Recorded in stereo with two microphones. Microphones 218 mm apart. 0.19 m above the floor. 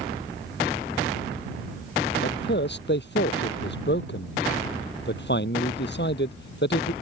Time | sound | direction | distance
2.2 | a man speaking | 55° left (ahead or behind) | ?